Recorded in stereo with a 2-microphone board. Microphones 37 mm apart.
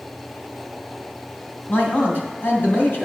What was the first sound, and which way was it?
A man speaking, 60° left (ahead or behind).